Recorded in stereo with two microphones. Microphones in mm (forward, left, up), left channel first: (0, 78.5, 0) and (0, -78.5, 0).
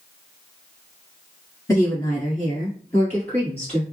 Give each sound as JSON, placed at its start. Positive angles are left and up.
{"t": 1.7, "sound": "a woman speaking", "side_deg": 20, "distance_m": 1.2}